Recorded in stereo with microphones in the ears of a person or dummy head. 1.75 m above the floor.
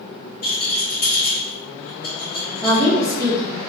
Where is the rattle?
55° left (ahead or behind), 1.7 m.